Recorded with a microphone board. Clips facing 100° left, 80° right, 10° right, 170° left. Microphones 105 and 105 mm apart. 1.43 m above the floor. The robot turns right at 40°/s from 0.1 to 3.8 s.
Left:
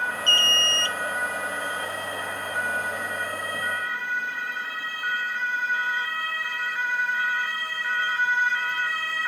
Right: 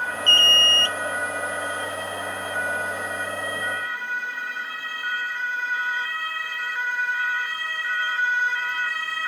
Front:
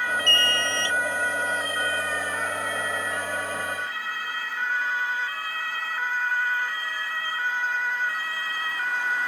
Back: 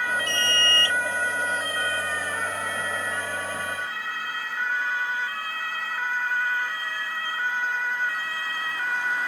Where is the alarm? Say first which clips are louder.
Right 3 dB, front 1 dB; 105° right, 0.5 m; by 1.0 s 75° right, 0.5 m.